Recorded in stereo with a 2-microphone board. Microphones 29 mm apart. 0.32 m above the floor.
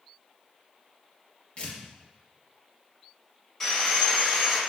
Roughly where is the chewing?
I don't hear chewing.